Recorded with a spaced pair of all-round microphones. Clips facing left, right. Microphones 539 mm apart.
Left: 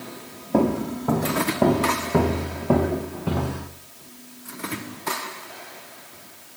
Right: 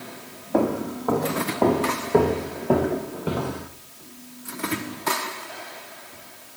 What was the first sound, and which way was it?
Footsteps, 45° left (ahead or behind).